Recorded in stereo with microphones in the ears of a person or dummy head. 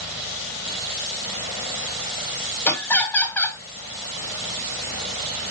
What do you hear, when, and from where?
2.6 s laughter: 10° left (ahead or behind), 0.9 m